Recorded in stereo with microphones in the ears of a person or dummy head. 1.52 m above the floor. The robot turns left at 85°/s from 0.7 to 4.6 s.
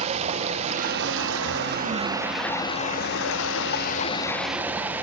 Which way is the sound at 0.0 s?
40° right.